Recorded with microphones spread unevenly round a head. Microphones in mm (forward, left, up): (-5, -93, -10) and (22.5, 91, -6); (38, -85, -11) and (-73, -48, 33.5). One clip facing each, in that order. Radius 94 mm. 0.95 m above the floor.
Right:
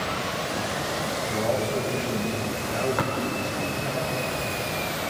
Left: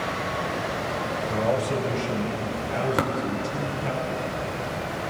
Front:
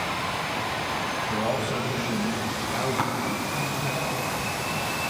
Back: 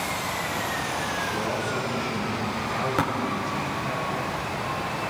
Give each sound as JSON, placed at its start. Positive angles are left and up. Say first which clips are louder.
{"t": 1.3, "sound": "a man speaking", "louder": "left 1 dB, front 3 dB", "azimuth_deg": 35, "distance_m": 4.5}
{"t": 3.0, "sound": "tapping", "louder": "left 2 dB, back 5 dB", "azimuth_deg": 130, "distance_m": 3.5}